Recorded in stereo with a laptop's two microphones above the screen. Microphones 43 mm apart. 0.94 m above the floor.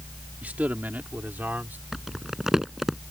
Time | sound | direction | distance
0.4 | a man speaking | 40° right (ahead or behind) | ?
1.9 | crumpling | 10° right (ahead or behind) | ?